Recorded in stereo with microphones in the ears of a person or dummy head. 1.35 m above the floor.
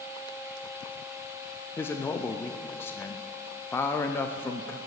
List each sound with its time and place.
1.8 s a man speaking: 10° left (ahead or behind), 0.5 m